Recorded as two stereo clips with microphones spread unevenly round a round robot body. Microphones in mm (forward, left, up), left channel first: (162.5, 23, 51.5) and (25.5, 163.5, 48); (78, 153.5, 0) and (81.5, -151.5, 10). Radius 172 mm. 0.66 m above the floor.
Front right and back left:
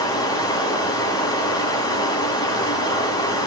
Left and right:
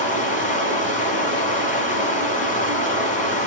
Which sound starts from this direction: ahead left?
Running water, at 0.0 s.